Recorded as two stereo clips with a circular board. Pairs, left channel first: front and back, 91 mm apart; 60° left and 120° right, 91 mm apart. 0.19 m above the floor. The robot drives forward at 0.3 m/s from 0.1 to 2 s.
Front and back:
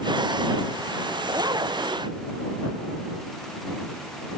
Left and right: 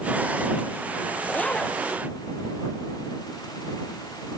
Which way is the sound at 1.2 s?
140° left.